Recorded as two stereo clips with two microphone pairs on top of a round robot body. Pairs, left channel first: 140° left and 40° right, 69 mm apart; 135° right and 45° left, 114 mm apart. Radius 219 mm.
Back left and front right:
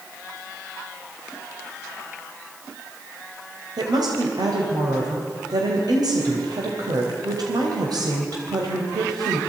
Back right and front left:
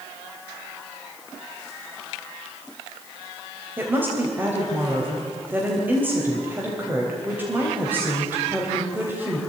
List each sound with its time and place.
3.8 s a woman speaking: 25° right, 3.5 m